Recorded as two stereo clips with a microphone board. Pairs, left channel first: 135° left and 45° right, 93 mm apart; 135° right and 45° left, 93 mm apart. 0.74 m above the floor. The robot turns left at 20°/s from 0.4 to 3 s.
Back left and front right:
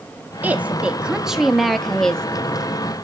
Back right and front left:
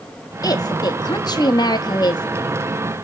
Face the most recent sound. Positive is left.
turn(degrees=-160)